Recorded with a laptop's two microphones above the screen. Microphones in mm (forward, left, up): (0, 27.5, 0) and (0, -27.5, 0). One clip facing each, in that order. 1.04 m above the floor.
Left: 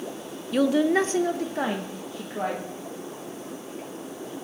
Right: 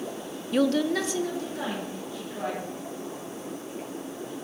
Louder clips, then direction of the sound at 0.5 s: Left 3 dB; 5° right (ahead or behind).